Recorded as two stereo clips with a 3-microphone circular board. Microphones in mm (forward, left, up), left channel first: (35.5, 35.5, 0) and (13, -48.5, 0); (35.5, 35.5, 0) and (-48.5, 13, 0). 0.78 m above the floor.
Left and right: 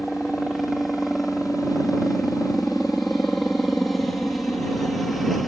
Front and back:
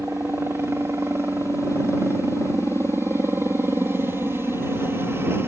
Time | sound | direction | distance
0.0 | a helicopter | 160° left | ?